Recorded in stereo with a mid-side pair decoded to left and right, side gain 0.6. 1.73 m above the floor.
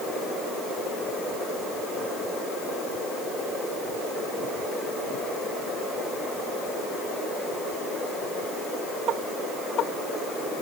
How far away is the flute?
I don't hear a flute.